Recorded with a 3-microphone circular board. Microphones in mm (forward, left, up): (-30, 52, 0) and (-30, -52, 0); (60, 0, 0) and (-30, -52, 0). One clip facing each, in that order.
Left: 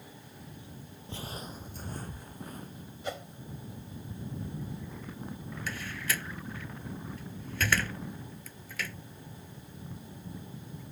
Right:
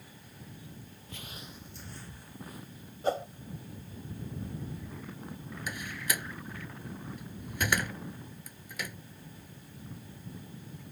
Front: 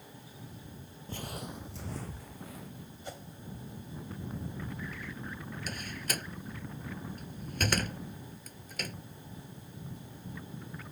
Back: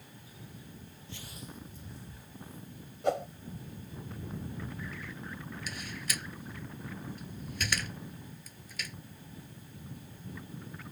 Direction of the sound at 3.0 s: 140° right.